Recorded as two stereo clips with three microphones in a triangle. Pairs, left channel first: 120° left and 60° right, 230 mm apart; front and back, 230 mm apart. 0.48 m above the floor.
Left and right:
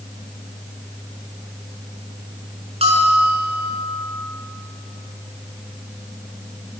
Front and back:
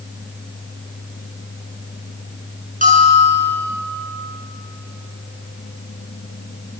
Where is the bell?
125° right, 6.5 m.